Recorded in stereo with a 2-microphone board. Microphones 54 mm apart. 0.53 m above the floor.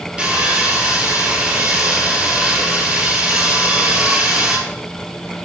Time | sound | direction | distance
0.2 | sawing | 15° right (ahead or behind) | 5.5 m